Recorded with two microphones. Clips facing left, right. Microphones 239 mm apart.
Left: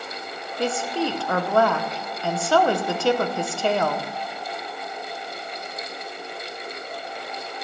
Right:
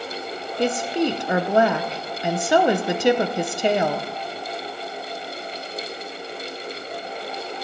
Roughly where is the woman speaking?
Centre.